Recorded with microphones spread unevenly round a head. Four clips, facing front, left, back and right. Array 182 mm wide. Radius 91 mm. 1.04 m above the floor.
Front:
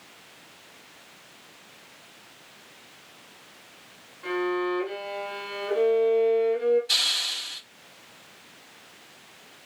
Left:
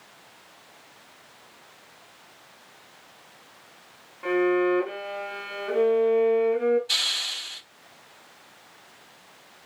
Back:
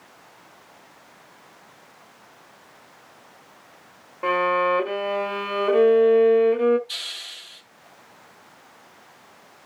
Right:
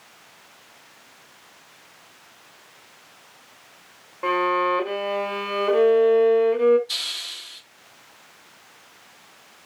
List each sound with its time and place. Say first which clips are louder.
4.2 s a violin: right 1 dB, back 6 dB; 150° right, 2 m
6.9 s a hiss: left 4 dB, front 7 dB; 35° left, 4 m